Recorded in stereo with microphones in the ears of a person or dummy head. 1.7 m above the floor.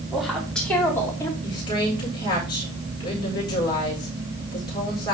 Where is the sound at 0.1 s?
Centre (ahead or behind), 3.5 m; by 1.3 s 15° left (ahead or behind), 3.5 m.